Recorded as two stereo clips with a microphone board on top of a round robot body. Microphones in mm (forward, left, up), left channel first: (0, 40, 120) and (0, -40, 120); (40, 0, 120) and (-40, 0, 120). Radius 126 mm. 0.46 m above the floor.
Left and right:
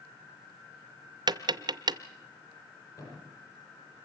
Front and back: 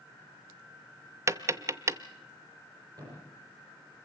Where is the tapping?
125° right, 0.6 m.